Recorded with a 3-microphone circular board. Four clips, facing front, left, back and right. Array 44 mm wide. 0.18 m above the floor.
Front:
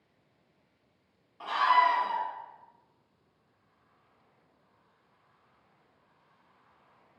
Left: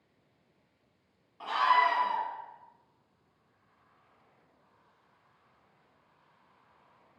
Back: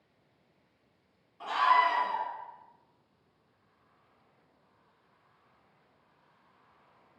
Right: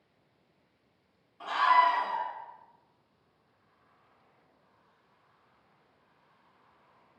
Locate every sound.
1.4 s a scream: 30° left, 1.3 m